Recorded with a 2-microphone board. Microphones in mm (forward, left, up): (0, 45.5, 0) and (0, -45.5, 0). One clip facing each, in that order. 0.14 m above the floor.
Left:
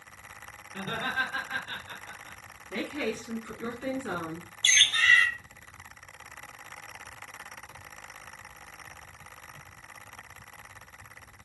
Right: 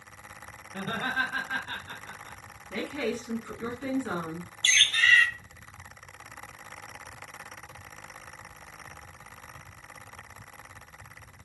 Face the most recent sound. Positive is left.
turn(degrees=35)  # may be behind; listen again after turning